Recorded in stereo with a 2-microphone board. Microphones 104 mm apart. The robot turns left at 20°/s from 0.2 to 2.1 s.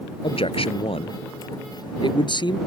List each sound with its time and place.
0.2 s a man speaking: 95° left; by 2.6 s 55° left